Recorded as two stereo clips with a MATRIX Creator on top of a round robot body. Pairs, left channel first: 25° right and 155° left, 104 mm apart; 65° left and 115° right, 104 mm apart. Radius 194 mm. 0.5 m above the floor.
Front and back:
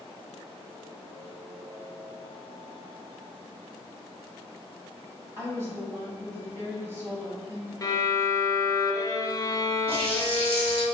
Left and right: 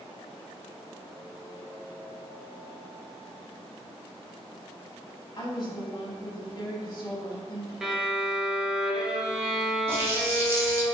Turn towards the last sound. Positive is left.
turn(degrees=180)